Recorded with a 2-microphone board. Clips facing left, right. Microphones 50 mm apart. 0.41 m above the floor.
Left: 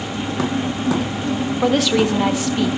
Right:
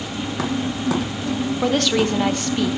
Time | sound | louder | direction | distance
1.6 | a woman speaking | left 3 dB | 5° left (ahead or behind) | 0.8 m